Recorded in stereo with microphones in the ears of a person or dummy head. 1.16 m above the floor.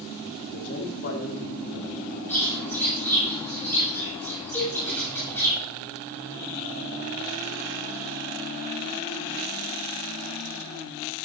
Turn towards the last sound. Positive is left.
turn(degrees=10)  # may be behind; listen again after turning